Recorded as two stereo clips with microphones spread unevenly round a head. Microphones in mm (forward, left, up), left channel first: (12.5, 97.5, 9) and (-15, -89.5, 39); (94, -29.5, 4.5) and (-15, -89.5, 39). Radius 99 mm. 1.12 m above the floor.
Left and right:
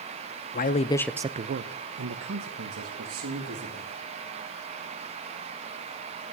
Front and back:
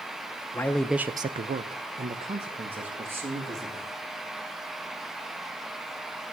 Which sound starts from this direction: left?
A man speaking, at 0.5 s.